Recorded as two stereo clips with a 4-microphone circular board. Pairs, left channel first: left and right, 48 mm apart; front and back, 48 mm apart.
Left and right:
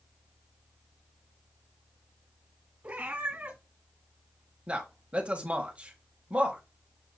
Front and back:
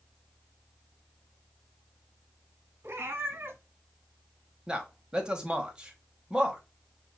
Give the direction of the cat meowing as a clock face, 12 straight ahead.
5 o'clock.